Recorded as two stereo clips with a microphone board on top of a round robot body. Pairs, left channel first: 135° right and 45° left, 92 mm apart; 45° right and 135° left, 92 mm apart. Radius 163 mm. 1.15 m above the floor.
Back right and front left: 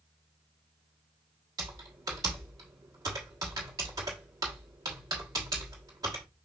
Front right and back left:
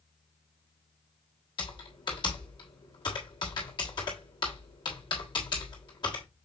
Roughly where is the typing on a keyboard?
Ahead.